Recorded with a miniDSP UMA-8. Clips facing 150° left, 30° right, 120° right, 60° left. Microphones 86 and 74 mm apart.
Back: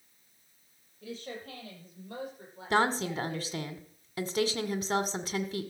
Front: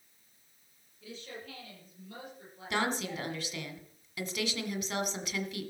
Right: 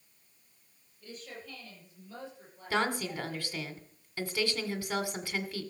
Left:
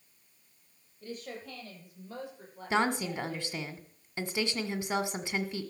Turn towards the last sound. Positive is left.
turn(degrees=120)